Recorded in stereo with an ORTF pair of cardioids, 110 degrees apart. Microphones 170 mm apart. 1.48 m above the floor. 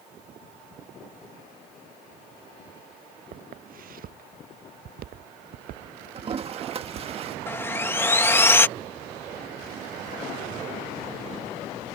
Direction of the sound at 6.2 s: 35° right.